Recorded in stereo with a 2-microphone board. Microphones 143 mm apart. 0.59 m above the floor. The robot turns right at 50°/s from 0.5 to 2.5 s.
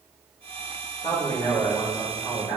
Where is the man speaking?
115° left, 1.9 m; by 2.6 s 175° right, 1.9 m.